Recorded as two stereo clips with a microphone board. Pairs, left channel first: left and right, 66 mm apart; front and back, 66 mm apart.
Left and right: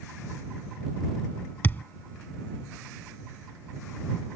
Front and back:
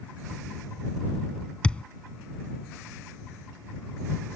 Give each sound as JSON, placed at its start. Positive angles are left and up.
{"t": 1.6, "sound": "a thud", "azimuth_deg": 60}